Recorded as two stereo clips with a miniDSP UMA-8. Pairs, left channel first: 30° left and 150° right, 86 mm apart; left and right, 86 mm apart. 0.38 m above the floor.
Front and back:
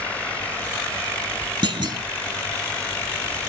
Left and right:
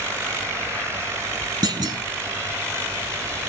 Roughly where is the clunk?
Behind right.